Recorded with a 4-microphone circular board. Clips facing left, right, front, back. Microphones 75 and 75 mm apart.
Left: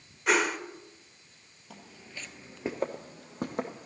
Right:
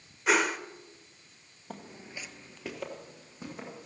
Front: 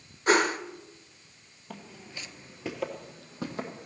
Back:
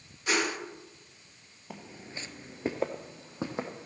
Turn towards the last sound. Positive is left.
turn(degrees=110)